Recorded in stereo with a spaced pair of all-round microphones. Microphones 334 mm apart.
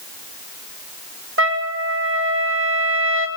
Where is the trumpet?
40° right (ahead or behind), 2.5 m.